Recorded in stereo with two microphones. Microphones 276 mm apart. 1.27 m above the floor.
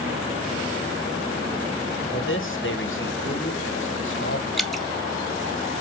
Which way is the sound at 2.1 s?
45° left (ahead or behind).